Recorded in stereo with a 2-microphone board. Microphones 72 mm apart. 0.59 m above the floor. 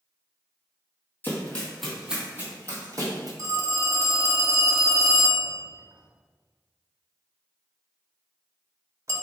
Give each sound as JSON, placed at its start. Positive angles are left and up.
{"t": 1.2, "sound": "running footsteps", "side_deg": 25, "distance_m": 1.1}
{"t": 3.4, "sound": "a phone ringing", "side_deg": -40, "distance_m": 0.6}